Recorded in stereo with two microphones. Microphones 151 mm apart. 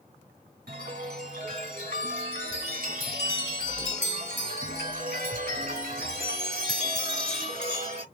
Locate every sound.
0.7 s a chime: 80° right, 1.8 m